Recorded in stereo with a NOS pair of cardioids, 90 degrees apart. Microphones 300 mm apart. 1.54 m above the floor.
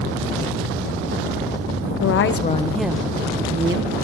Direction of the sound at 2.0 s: 55° left.